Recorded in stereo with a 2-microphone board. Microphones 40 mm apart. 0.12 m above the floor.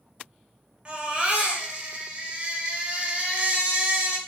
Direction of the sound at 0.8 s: 25° right (ahead or behind).